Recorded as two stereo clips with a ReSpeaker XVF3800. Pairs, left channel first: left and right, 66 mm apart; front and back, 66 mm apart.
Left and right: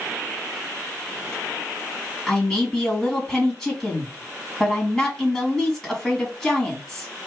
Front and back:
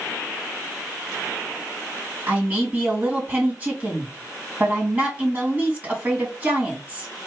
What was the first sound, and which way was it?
A man speaking, 165° left.